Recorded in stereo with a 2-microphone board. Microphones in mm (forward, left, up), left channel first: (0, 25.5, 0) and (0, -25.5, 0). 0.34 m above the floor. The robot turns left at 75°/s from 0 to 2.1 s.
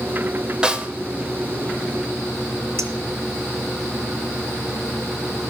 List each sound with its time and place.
0.6 s a snare drum: 15° right (ahead or behind), 1.1 m; by 0.9 s 25° right (ahead or behind), 1.1 m
2.8 s a clink: 60° right (ahead or behind), 2.5 m